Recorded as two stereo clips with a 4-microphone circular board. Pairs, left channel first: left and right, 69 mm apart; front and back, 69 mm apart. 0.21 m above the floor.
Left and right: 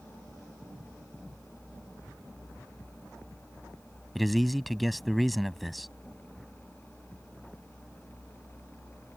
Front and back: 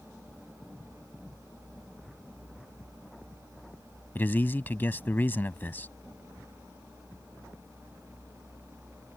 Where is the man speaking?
Straight ahead.